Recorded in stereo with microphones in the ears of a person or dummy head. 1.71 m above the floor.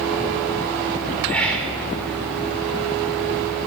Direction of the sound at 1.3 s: 5° left (ahead or behind).